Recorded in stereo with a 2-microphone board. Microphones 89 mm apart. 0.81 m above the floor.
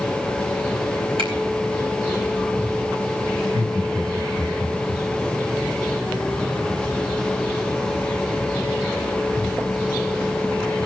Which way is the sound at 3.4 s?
45° right (ahead or behind).